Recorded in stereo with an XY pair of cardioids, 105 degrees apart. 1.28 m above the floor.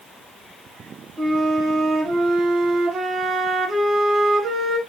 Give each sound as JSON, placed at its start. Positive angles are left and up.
{"t": 1.2, "sound": "a flute", "azimuth_deg": -60, "distance_m": 1.6}